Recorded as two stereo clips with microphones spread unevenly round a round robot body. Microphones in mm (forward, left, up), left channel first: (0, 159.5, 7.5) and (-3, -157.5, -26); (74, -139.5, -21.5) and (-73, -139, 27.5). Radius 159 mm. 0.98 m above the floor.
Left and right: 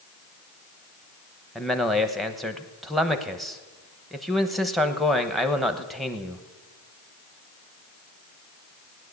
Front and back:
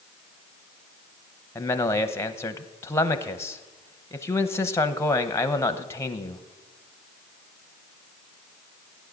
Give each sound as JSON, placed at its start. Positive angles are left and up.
{"t": 1.6, "sound": "a man speaking", "azimuth_deg": -10, "distance_m": 0.9}